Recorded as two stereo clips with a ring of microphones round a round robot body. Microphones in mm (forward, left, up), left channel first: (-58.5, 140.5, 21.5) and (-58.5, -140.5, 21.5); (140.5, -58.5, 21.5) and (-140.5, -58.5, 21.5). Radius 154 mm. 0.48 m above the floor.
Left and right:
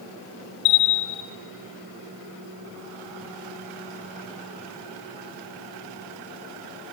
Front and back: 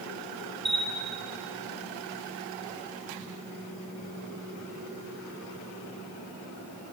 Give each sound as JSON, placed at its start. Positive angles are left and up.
{"t": 0.7, "sound": "a bell", "azimuth_deg": 90, "distance_m": 0.5}